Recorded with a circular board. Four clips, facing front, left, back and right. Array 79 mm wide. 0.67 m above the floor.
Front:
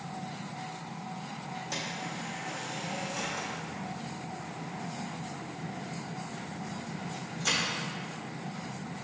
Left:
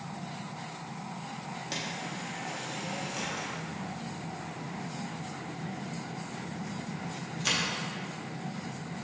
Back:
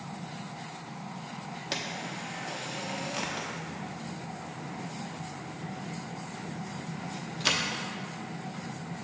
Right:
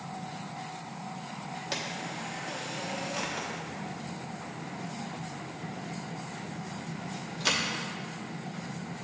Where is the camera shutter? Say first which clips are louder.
Right 1 dB, back 3 dB; 165° right, 0.7 m.